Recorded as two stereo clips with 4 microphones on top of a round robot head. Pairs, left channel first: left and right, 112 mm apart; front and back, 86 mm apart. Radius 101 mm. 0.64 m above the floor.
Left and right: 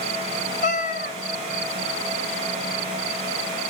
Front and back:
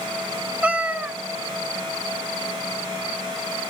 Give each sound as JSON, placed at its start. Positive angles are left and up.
{"t": 0.6, "sound": "a cat meowing", "azimuth_deg": 105, "distance_m": 1.2}